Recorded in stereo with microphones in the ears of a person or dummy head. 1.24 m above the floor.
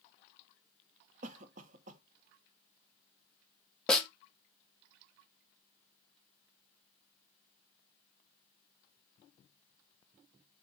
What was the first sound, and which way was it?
A cough, 45° right (ahead or behind).